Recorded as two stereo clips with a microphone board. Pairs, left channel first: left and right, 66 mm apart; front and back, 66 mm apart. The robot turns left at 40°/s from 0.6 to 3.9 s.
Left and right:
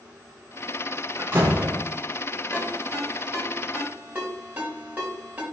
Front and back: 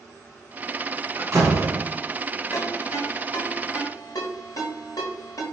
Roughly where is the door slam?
Behind right.